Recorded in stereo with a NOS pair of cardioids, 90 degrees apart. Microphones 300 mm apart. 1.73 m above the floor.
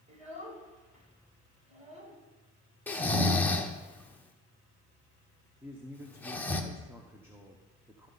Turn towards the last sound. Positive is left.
turn(degrees=-10)